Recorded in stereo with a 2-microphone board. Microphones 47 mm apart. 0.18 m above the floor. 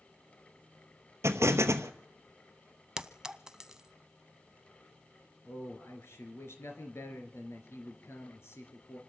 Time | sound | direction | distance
1.2 | an explosion | 75° right (ahead or behind) | 1.0 m
3.0 | a clink | 15° right (ahead or behind) | 0.6 m
5.5 | a man speaking | 65° left (ahead or behind) | 3 m